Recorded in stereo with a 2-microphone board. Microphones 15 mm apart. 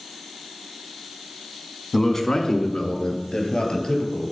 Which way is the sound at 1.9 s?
15° left (ahead or behind).